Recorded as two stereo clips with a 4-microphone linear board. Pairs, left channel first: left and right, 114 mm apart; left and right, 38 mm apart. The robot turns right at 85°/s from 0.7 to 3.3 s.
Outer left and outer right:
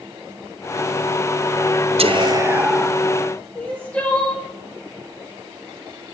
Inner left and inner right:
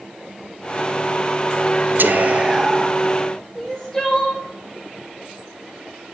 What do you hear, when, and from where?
2.0 s whispering: 65° right, 0.6 m; by 3.0 s 25° left, 0.6 m
3.5 s crying: 10° left (ahead or behind), 1.7 m